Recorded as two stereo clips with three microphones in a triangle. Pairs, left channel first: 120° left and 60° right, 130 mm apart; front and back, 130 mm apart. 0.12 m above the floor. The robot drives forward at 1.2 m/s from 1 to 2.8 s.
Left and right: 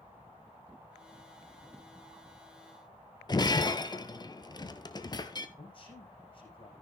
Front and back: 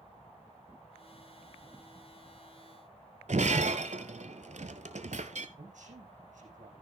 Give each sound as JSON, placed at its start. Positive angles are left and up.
{"t": 3.3, "sound": "breaking glass", "azimuth_deg": 175, "distance_m": 0.8}
{"t": 5.6, "sound": "a man speaking", "azimuth_deg": 165, "distance_m": 5.0}